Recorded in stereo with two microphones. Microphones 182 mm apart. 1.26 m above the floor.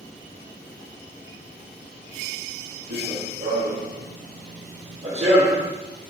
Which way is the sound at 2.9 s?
60° right (ahead or behind).